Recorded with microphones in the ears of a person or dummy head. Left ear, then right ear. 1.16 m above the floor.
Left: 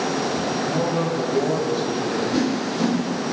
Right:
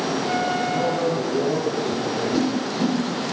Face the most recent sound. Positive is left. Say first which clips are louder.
# even
turn(degrees=0)  # may be behind; listen again after turning